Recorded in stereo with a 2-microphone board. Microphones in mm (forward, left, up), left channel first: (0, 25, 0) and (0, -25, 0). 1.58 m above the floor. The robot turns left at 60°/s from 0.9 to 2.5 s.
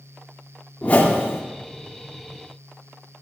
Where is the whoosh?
145° left, 1.6 m; by 1.4 s 110° left, 1.6 m.